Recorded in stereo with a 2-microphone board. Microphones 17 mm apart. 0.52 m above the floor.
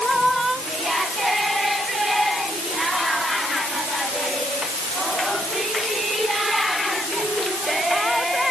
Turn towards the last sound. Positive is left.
No sound to turn to.